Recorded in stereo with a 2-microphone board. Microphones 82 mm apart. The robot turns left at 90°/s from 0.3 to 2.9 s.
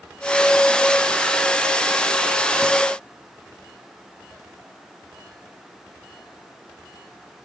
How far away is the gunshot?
No gunshot in this recording.